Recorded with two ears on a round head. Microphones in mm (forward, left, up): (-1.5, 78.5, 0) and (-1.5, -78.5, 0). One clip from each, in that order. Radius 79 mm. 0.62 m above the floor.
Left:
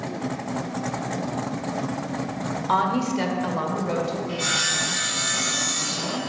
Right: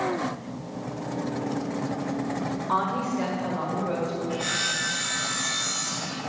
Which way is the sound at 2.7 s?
45° left (ahead or behind).